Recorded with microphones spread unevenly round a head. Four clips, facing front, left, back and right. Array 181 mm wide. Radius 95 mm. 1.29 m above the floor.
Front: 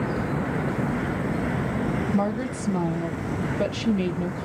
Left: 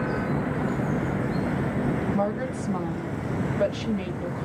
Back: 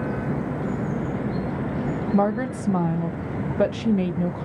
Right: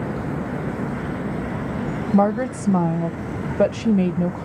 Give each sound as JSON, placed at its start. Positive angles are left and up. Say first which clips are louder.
{"t": 2.1, "sound": "a woman speaking", "louder": "right 7 dB, back 3 dB", "azimuth_deg": -105, "distance_m": 0.5}